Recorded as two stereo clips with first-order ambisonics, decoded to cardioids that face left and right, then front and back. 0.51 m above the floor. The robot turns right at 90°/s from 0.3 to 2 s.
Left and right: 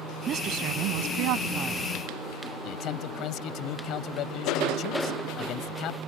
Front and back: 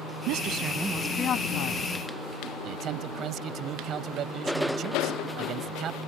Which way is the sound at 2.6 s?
130° left.